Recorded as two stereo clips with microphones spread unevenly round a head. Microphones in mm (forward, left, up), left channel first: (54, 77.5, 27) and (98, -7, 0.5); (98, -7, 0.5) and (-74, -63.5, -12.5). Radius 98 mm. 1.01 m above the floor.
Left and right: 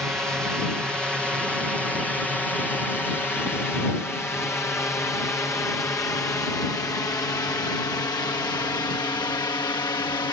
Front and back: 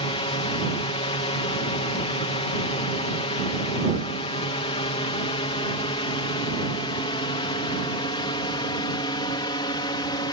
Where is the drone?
5° left; by 10.3 s 80° left.